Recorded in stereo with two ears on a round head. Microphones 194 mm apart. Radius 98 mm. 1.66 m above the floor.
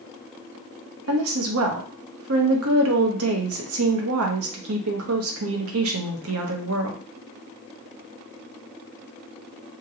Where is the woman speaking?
75° right (ahead or behind), 0.8 m.